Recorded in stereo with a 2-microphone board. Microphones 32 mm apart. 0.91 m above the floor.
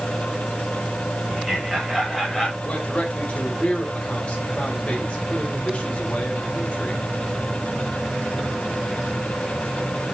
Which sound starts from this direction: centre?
Laughter, at 1.3 s.